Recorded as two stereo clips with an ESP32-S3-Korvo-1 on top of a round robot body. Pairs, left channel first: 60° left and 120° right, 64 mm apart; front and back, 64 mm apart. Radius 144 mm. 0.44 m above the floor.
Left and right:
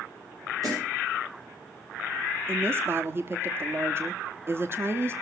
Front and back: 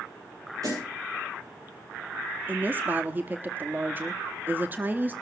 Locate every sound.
0.6 s a snare drum: 150° right, 9.5 m
2.5 s a woman speaking: 140° right, 1.2 m